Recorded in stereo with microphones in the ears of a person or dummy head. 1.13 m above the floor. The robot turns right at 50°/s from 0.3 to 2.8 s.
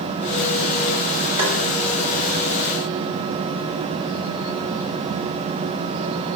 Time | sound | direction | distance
1.4 | tapping | 30° right (ahead or behind) | 3.5 m